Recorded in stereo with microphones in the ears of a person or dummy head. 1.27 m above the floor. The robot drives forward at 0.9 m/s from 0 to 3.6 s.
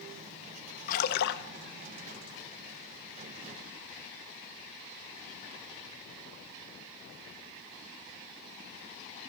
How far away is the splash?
About 1.3 m.